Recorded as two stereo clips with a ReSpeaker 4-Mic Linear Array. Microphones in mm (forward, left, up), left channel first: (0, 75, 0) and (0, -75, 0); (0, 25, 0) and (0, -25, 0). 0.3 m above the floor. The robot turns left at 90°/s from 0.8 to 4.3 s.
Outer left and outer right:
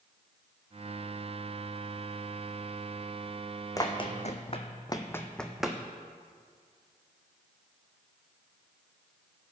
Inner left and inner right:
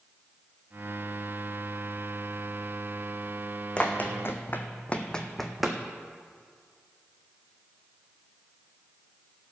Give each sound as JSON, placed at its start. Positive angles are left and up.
{"t": 3.8, "sound": "running footsteps", "side_deg": 25, "distance_m": 1.4}